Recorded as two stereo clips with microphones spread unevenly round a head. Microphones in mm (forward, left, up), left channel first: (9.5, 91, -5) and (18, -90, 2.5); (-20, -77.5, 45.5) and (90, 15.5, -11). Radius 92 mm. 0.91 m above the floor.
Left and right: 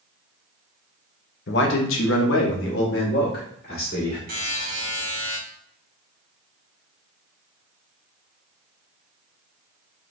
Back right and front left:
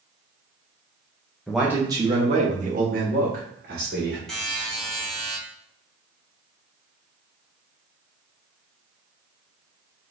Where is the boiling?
No boiling in this recording.